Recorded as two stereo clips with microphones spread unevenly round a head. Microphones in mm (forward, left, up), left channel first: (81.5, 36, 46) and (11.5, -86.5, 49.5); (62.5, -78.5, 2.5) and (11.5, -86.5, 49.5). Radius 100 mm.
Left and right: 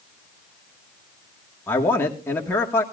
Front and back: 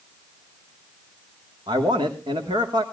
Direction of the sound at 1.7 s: 135° left.